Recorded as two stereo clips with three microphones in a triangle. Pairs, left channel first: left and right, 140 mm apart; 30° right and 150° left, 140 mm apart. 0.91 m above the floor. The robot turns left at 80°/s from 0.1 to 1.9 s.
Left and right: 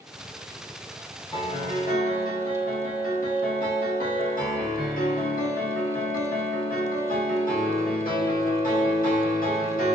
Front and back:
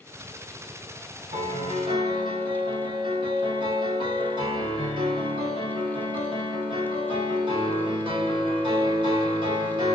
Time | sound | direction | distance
1.3 | a piano | 145° left | 1.0 m